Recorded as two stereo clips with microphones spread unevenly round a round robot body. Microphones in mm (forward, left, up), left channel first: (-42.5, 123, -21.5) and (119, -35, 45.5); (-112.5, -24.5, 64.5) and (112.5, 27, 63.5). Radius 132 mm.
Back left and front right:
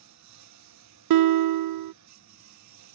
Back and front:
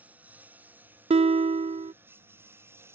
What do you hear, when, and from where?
0.0 s a lawn mower: 70° right; by 3.0 s 65° right
1.1 s a guitar: 50° right